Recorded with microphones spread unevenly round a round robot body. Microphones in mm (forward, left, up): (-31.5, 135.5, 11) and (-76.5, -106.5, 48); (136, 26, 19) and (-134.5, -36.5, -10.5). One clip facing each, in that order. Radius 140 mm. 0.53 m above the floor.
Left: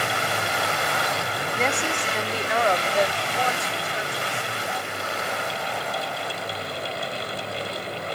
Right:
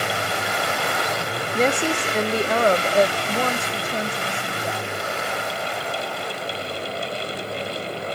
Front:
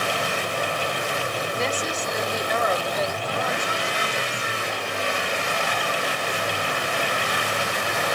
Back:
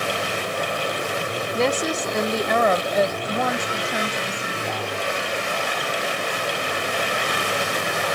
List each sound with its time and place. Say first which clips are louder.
1.5 s a woman speaking: right 7 dB, back 9 dB; 150° right; by 4.9 s 140° right